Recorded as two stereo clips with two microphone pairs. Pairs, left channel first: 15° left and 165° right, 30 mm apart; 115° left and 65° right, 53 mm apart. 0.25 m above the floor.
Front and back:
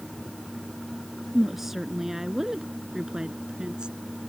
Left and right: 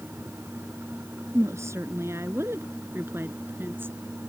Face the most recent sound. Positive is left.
turn(degrees=-110)